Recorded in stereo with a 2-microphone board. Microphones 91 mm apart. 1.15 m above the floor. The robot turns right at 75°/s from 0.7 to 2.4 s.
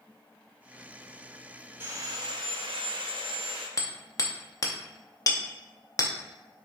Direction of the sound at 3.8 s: 40° left (ahead or behind).